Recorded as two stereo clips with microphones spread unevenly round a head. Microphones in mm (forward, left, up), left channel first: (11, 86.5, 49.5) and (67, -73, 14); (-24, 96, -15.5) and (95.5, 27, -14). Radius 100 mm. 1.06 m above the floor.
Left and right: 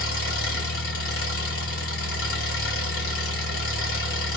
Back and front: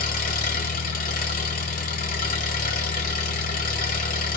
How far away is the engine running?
About 1.3 m.